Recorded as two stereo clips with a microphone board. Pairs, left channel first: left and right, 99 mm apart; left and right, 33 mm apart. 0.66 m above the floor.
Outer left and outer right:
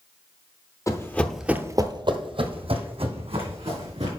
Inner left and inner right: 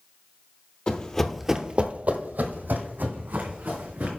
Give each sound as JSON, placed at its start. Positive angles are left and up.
{"t": 0.9, "sound": "running footsteps", "side_deg": 30, "distance_m": 1.1}